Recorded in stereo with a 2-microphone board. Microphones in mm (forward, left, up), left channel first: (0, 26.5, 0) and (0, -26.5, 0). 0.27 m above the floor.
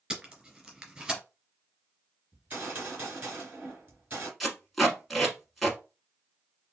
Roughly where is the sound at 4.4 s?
Centre.